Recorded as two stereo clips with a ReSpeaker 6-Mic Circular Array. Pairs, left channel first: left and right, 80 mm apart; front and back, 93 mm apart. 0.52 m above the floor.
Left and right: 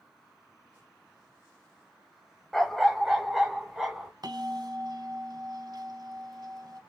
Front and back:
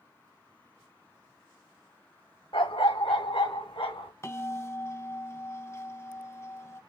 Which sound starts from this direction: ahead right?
A bell, at 4.2 s.